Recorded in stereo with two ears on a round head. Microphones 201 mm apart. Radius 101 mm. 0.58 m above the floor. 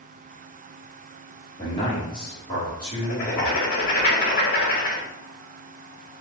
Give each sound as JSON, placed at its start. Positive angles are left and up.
{"t": 1.6, "sound": "a man speaking", "side_deg": 20, "distance_m": 1.3}
{"t": 3.0, "sound": "writing", "side_deg": 40, "distance_m": 1.3}